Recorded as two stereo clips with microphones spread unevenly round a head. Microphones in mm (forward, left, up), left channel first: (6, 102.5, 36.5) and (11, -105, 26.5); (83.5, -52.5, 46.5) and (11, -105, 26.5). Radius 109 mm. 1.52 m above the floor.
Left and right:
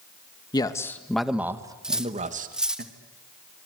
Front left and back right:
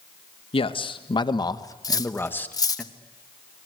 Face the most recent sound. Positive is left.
turn(degrees=0)